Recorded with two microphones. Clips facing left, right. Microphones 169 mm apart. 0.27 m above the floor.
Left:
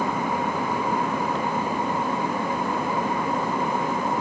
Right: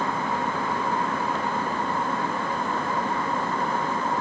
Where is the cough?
I don't hear a cough.